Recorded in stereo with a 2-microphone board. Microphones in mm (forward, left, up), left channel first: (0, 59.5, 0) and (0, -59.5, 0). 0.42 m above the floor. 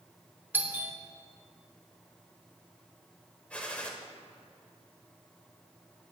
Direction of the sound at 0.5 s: 15° right (ahead or behind).